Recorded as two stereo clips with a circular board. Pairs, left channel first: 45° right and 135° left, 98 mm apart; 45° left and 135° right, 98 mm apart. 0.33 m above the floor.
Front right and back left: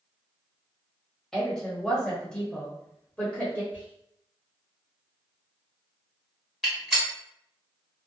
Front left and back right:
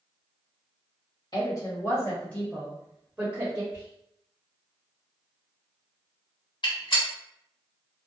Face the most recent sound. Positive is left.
turn(degrees=50)